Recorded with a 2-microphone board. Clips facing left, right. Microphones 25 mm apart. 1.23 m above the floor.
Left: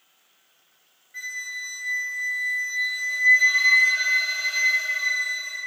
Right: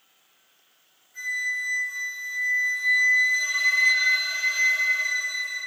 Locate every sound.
1.1 s a flute: 50° left (ahead or behind), 1.2 m